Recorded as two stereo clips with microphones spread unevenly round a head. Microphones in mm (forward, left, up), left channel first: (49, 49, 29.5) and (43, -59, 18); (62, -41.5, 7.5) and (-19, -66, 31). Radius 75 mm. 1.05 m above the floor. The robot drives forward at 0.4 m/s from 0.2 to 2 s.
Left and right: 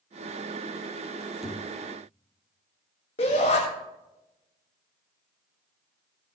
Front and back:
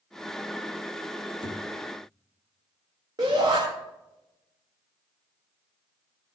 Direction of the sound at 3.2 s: 135° left.